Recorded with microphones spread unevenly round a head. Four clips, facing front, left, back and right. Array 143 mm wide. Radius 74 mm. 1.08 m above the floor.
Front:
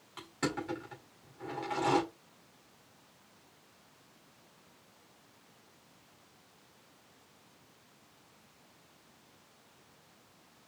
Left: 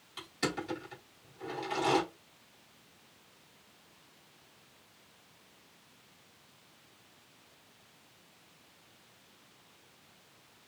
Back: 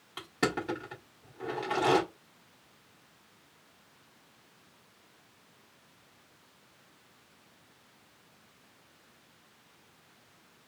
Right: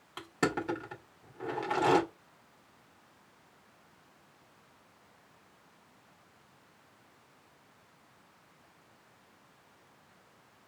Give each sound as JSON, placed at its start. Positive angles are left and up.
{"t": 0.2, "sound": "crushing", "azimuth_deg": -135, "distance_m": 1.7}